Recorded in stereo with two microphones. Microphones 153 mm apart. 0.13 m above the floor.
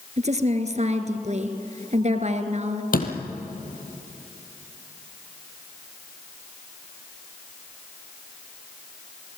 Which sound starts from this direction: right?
A woman speaking, at 0.2 s.